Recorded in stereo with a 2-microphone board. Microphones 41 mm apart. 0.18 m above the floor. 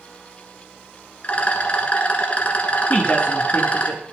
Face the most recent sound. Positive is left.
turn(degrees=30)  # may be behind; listen again after turning